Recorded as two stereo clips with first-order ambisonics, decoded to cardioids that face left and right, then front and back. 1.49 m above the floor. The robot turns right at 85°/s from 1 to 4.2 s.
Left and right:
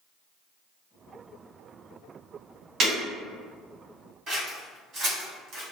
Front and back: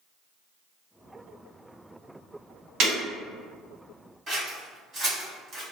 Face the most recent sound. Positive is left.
turn(degrees=-120)